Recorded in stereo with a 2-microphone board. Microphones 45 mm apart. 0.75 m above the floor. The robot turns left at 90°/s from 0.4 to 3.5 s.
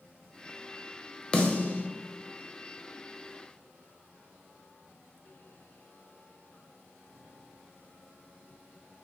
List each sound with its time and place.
1.3 s a snare drum: 25° left (ahead or behind), 0.5 m; by 1.9 s 35° left (ahead or behind), 0.5 m